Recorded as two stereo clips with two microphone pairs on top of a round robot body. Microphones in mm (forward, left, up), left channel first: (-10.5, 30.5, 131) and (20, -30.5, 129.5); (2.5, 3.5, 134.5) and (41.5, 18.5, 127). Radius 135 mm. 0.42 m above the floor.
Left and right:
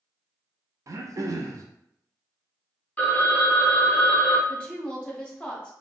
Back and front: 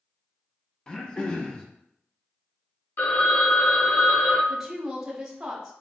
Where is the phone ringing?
Straight behind, 0.9 m.